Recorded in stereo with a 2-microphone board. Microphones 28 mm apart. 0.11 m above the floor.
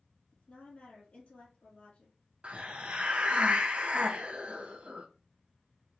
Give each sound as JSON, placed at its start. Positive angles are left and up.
{"t": 0.3, "sound": "a woman speaking", "side_deg": 50, "distance_m": 2.5}
{"t": 2.4, "sound": "a hiss", "side_deg": -50, "distance_m": 0.6}